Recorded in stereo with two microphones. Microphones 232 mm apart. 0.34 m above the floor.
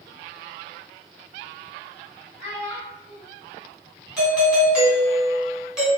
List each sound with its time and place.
2.4 s a child speaking: 55° right (ahead or behind), 1.7 m
4.2 s a doorbell: 5° right (ahead or behind), 1.5 m